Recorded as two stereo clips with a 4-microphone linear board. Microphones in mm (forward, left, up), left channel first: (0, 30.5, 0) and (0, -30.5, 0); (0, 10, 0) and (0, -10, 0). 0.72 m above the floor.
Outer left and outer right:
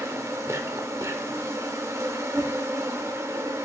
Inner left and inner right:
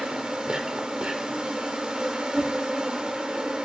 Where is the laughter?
No laughter in this recording.